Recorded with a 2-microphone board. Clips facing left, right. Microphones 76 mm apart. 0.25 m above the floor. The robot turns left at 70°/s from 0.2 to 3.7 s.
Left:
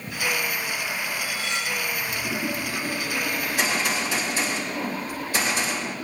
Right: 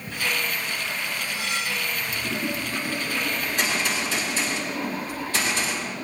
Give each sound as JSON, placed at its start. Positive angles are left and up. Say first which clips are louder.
{"t": 1.2, "sound": "cutlery clinking", "louder": "even", "azimuth_deg": -15, "distance_m": 6.5}
{"t": 3.4, "sound": "a gunshot", "louder": "left 1 dB", "side_deg": -10, "distance_m": 7.5}